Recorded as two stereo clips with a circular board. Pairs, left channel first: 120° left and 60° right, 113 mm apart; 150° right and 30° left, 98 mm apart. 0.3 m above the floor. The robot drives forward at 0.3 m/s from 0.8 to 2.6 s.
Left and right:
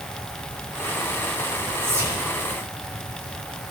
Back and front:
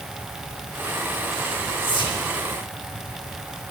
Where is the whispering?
125° right, 3.5 m.